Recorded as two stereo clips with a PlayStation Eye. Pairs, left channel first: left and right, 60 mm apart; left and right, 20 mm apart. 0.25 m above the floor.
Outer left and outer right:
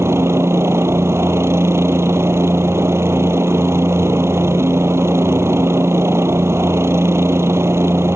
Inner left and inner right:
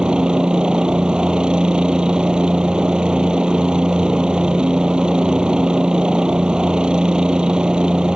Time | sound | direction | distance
0.0 | a helicopter | 50° right (ahead or behind) | ?